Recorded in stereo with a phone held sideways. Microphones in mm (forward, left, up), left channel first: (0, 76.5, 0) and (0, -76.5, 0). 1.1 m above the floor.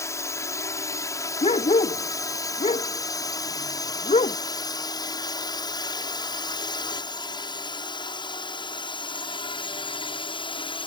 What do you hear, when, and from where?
0.0 s a drone: 20° left (ahead or behind); by 10.9 s 35° left (ahead or behind)
1.4 s a dog barking: 45° left (ahead or behind)